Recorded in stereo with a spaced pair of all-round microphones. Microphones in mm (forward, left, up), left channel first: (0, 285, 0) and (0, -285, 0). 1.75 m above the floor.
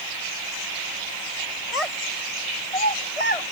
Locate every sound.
1.7 s a child speaking: 80° left